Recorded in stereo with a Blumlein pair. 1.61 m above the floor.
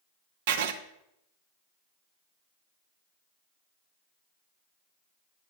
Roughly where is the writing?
Ahead right.